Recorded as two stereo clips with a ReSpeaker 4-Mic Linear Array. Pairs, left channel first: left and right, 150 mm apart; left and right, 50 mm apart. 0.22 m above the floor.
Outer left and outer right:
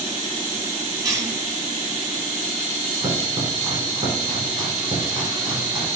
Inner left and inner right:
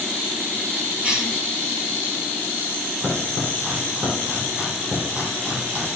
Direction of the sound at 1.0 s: 25° right (ahead or behind).